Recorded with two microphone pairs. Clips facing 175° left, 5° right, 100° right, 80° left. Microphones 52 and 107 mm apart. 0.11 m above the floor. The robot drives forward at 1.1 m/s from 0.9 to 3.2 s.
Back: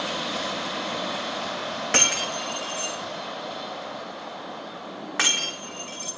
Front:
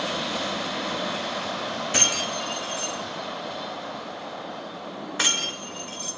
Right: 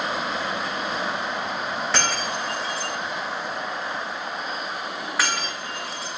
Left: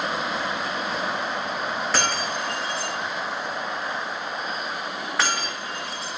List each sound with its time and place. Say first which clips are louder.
1.9 s breaking glass: back 3 dB, even; 165° left, 3.5 m; by 6.1 s 170° left, 4.5 m